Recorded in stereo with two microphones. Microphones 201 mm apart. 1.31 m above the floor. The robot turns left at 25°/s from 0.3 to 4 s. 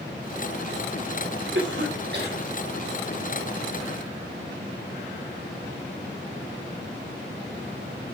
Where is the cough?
70° right (ahead or behind), 2.5 m; by 2.4 s 50° right (ahead or behind), 2.5 m.